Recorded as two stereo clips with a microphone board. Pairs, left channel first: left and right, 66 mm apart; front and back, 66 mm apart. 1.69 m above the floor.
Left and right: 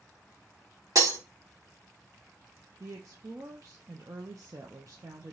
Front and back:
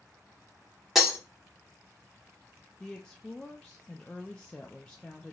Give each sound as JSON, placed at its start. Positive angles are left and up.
{"t": 0.9, "sound": "breaking glass", "azimuth_deg": -95, "distance_m": 2.0}
{"t": 2.8, "sound": "a woman speaking", "azimuth_deg": -75, "distance_m": 0.7}